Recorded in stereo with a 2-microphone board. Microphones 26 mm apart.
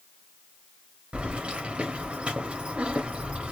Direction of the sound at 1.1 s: 55° right (ahead or behind).